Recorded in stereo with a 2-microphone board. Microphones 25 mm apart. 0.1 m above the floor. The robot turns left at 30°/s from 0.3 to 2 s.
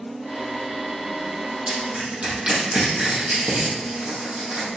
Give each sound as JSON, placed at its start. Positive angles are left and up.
{"t": 1.7, "sound": "crushing", "side_deg": -65, "distance_m": 4.0}